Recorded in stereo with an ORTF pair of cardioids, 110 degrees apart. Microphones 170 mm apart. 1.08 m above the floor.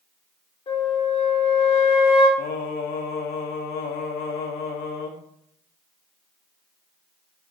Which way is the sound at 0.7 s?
35° left.